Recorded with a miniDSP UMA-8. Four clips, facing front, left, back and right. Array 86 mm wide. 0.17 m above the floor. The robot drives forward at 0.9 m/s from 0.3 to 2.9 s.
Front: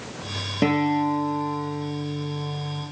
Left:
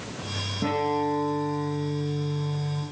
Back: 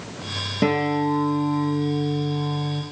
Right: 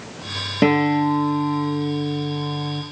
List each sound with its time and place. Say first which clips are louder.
0.6 s a guitar: right 8 dB, even; 85° right, 2 m; by 2.8 s 130° right, 3 m